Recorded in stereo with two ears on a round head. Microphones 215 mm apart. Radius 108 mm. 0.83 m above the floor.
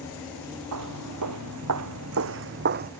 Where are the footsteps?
75° right (ahead or behind); by 2.9 s 40° right (ahead or behind).